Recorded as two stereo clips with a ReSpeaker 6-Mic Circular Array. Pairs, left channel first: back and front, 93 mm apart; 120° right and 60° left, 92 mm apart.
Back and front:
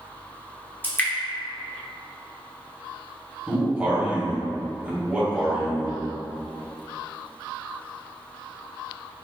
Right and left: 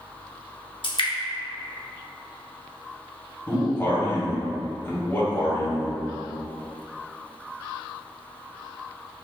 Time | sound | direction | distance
0.8 | dripping | 110° right | 0.7 m
3.5 | a man speaking | 70° right | 1.4 m